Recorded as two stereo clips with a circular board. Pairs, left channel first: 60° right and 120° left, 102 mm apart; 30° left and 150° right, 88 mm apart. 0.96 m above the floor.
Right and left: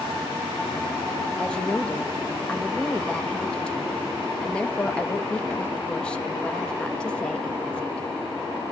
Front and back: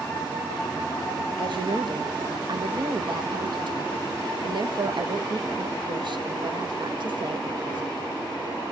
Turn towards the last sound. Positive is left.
turn(degrees=-140)